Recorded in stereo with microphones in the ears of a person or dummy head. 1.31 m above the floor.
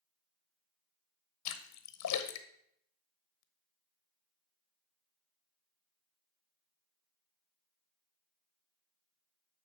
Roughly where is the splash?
Left.